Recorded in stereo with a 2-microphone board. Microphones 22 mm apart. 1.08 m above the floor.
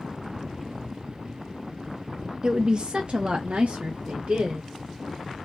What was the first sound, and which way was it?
A woman speaking, 20° right (ahead or behind).